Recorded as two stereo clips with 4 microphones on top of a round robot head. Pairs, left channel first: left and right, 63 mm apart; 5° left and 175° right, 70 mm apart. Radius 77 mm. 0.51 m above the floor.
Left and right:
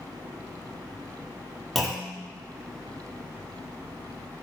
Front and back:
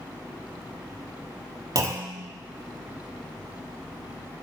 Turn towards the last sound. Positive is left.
turn(degrees=180)